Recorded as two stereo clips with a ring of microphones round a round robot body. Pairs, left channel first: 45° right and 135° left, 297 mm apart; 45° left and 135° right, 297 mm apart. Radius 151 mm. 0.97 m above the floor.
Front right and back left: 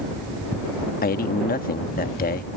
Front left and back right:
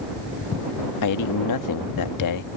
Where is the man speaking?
20° left.